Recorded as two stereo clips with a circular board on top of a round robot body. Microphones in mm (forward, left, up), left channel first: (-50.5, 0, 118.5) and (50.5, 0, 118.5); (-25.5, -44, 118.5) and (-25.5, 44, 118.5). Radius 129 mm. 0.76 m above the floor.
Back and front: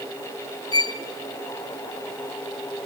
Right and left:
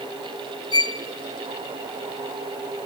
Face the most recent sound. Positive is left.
turn(degrees=-130)